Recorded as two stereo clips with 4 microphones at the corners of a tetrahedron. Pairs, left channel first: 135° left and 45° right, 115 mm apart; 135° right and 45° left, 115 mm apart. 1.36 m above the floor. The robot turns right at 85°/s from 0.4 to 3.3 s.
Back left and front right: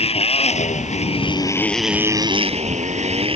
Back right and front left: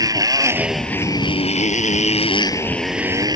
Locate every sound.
0.0 s a motorcycle: 105° left; by 3.4 s 10° right